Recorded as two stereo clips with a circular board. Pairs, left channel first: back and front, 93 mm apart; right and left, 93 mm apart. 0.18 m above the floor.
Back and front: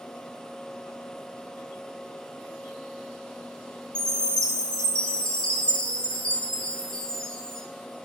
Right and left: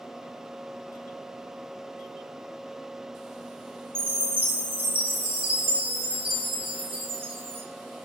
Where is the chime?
100° left, 5 m.